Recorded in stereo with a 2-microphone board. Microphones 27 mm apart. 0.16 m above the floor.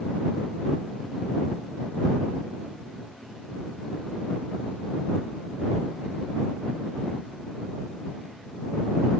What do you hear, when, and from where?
Only background noise.